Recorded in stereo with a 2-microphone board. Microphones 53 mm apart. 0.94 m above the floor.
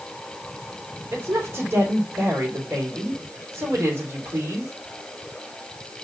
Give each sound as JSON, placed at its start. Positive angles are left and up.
{"t": 1.1, "sound": "a woman speaking", "side_deg": -55, "distance_m": 3.5}